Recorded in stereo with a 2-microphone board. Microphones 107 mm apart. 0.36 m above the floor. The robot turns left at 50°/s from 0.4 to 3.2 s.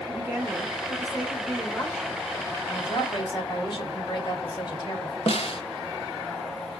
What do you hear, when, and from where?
0.1 s a woman speaking: 125° right, 1.2 m; by 2.2 s 145° left, 1.2 m
2.6 s a woman speaking: 35° left (ahead or behind), 1.6 m; by 5.2 s 50° left (ahead or behind), 1.6 m
5.3 s a snare drum: 65° left (ahead or behind), 0.5 m